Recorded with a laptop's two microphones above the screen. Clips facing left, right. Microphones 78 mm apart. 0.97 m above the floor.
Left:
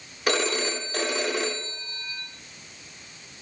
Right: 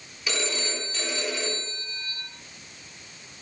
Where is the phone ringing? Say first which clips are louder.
Left 6 dB; 55° left (ahead or behind), 1.8 m.